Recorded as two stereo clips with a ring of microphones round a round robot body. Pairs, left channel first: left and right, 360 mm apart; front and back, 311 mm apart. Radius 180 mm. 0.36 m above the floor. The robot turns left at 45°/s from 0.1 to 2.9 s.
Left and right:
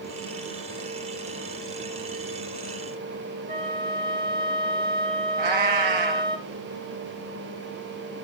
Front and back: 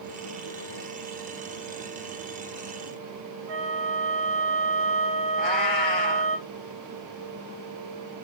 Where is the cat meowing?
45° right, 2.5 m.